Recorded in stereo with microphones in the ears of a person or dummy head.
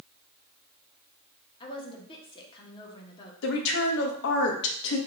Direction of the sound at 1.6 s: 30° left (ahead or behind).